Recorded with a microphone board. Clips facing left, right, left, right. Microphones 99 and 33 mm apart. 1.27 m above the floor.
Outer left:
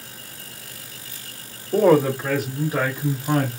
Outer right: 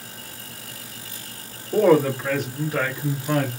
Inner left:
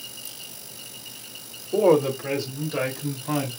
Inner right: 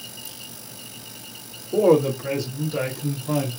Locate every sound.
1.7 s a woman speaking: centre (ahead or behind), 2.5 m; by 3.5 s 25° left (ahead or behind), 2.5 m